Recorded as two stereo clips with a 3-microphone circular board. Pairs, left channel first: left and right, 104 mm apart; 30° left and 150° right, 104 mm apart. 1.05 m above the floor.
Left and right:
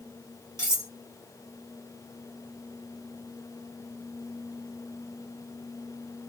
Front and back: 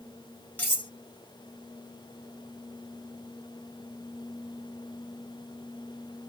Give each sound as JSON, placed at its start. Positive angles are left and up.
{"t": 0.6, "sound": "cutlery clinking", "azimuth_deg": -40, "distance_m": 1.1}